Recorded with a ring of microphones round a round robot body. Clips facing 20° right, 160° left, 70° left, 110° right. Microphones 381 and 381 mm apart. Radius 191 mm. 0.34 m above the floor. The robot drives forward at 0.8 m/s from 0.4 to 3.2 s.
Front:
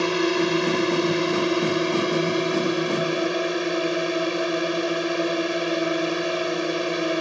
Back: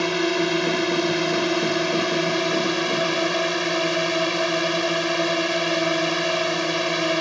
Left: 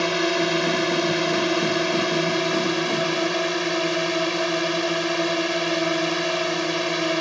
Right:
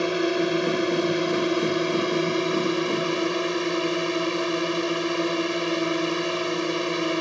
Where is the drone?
90° left; by 7.2 s 125° left.